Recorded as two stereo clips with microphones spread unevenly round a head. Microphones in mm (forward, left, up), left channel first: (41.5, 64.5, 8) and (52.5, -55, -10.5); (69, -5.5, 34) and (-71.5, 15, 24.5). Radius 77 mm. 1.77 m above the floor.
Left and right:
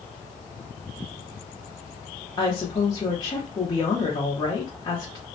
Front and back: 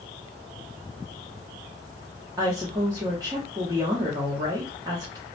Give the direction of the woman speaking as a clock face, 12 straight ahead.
8 o'clock.